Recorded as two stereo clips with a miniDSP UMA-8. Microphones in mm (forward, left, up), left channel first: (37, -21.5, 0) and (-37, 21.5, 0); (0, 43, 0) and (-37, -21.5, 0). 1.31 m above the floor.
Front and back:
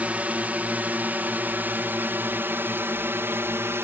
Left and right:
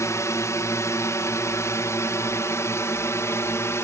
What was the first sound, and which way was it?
A drone, 85° left.